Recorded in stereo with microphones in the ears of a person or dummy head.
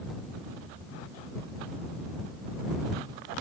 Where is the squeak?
No squeak in this recording.